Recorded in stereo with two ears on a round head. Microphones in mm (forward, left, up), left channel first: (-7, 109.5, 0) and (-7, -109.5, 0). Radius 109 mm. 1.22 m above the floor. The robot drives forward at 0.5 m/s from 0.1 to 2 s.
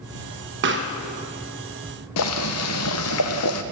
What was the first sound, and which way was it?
A pop, 50° right (ahead or behind).